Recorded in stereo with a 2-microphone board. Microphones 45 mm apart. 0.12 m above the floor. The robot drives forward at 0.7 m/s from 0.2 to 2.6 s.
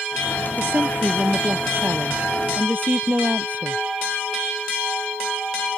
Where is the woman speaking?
60° right (ahead or behind); by 3.8 s 45° right (ahead or behind).